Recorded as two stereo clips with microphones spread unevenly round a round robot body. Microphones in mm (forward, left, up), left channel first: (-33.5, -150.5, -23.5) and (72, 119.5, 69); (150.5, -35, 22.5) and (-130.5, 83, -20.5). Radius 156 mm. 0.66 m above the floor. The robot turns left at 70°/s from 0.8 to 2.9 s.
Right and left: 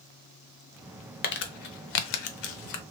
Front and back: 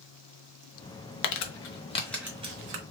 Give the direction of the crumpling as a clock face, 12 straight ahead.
1 o'clock.